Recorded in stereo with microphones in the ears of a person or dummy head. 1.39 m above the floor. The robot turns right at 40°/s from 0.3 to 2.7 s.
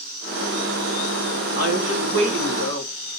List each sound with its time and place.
1.6 s a woman speaking: 130° right, 1.3 m; by 2.9 s 85° right, 1.3 m